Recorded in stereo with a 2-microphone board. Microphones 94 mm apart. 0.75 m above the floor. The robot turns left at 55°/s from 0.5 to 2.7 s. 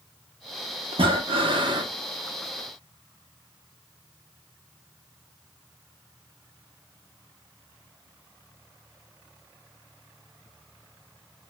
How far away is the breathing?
About 0.6 m.